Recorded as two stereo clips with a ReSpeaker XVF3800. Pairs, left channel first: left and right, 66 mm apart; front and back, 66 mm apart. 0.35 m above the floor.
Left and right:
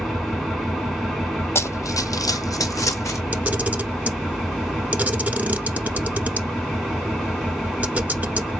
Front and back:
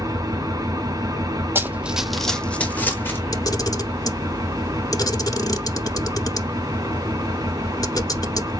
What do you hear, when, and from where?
0.0 s an engine running: straight behind, 2 m
1.6 s running footsteps: 130° left, 0.6 m; by 3.2 s 55° left, 1.2 m
3.3 s a camera shutter: 20° right, 1.0 m